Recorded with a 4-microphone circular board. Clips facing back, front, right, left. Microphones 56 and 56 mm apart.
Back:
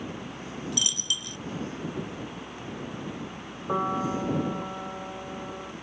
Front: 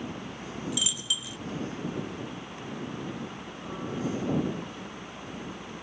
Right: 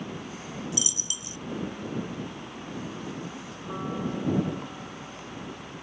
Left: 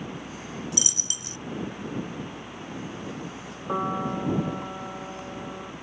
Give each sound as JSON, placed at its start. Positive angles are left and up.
{"t": 0.7, "sound": "a dropped coin", "azimuth_deg": 85}
{"t": 3.7, "sound": "a piano", "azimuth_deg": 145}